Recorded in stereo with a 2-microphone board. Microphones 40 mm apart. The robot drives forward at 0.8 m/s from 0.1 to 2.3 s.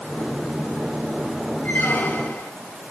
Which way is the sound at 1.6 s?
60° left (ahead or behind).